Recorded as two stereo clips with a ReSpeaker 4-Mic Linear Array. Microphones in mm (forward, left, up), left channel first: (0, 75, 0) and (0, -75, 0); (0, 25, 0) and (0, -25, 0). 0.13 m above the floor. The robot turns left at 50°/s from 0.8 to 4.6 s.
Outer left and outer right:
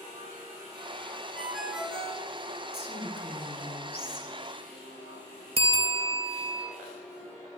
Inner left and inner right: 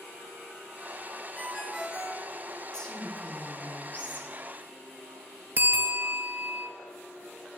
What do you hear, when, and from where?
1.4 s a ringtone: 5° left, 1.2 m; by 2.3 s 40° right, 1.2 m
2.7 s a woman speaking: 155° left, 1.7 m; by 4.3 s 75° left, 1.7 m
5.6 s a bell: 45° right (ahead or behind), 0.7 m